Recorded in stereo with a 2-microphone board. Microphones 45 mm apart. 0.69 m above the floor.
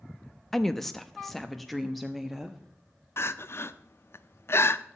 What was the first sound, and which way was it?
A woman speaking, 10° left (ahead or behind).